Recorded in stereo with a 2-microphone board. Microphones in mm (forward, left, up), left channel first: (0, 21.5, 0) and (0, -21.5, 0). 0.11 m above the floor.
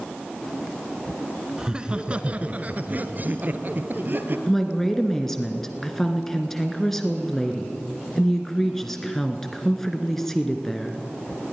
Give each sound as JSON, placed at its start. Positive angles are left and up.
{"t": 1.6, "sound": "laughter", "side_deg": -15, "distance_m": 1.2}
{"t": 4.5, "sound": "a woman speaking", "side_deg": 5, "distance_m": 1.4}